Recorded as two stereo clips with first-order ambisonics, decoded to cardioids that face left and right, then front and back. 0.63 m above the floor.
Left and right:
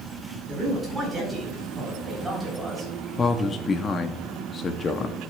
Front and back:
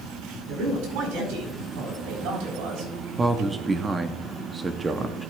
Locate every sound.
0.5 s a man speaking: 175° right, 4.5 m
3.2 s a man speaking: 125° left, 0.6 m